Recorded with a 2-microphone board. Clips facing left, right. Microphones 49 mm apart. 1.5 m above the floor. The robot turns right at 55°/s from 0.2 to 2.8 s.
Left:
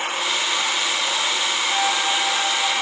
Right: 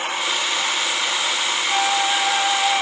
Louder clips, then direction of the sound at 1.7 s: Right 3 dB; 20° right (ahead or behind).